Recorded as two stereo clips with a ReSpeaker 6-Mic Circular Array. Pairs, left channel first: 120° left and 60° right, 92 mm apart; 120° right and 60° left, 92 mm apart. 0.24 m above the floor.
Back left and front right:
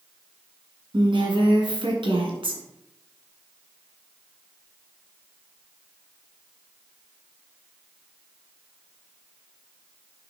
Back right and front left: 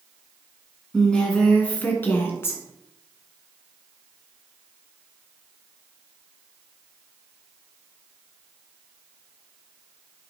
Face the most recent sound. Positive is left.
turn(degrees=-60)